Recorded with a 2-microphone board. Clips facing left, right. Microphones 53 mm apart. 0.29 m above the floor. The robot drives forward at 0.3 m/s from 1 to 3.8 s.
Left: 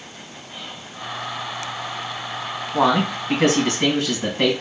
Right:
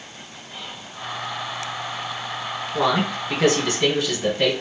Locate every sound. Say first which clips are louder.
0.5 s whispering: even; 5° left (ahead or behind), 1.0 m
2.7 s a man speaking: left 3 dB; 55° left (ahead or behind), 2 m